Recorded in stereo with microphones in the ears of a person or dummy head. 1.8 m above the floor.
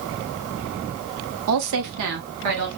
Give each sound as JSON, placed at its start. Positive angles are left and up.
{"t": 1.5, "sound": "a woman speaking", "side_deg": -75, "distance_m": 0.8}